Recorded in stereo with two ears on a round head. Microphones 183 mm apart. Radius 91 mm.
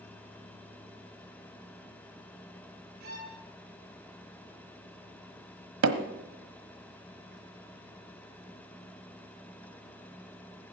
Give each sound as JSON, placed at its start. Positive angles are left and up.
{"t": 3.0, "sound": "a violin", "side_deg": -50, "distance_m": 6.0}
{"t": 5.8, "sound": "hammering", "side_deg": -75, "distance_m": 1.4}